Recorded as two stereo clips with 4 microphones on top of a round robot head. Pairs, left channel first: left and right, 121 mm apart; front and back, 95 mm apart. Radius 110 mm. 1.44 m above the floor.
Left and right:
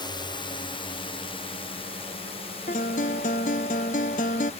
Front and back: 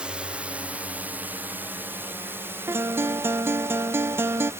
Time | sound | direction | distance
0.0 | a drone | 105° left | ?
2.7 | a guitar | 125° left | ?